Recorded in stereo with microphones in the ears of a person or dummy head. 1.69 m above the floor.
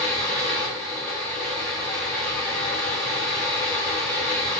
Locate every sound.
0.0 s a fan: 5° left (ahead or behind), 1.8 m